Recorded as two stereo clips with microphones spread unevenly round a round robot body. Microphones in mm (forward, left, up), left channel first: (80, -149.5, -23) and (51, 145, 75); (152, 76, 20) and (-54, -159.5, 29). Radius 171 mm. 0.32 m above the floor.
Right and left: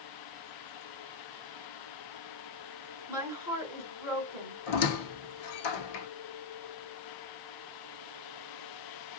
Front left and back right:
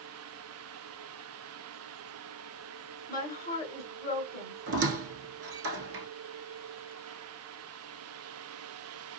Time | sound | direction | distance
3.1 | a woman speaking | straight ahead | 1.5 m
4.7 | a squeak | 80° right | 0.7 m